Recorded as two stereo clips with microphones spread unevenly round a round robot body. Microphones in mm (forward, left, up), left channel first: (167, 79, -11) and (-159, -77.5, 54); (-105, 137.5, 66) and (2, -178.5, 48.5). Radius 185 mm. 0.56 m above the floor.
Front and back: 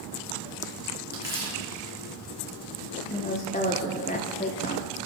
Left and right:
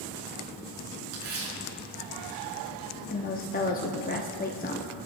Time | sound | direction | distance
1.1 | tearing paper | 75° right | 5 m
3.1 | a woman speaking | 60° left | 0.9 m